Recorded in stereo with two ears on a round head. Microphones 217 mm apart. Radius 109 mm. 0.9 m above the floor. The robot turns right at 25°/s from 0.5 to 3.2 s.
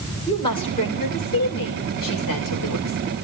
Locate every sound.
0.3 s a woman speaking: 20° left, 4 m; by 3.0 s 85° left, 4 m